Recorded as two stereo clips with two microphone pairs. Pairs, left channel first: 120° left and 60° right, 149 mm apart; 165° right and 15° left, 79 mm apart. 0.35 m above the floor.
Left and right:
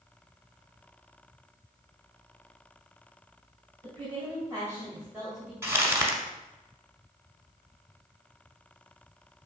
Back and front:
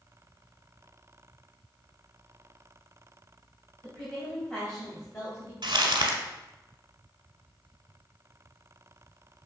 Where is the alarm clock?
No alarm clock in this recording.